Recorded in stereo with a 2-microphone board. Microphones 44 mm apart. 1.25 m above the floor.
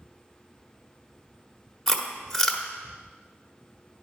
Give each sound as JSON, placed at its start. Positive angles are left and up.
{"t": 1.9, "sound": "chewing", "side_deg": 15, "distance_m": 1.1}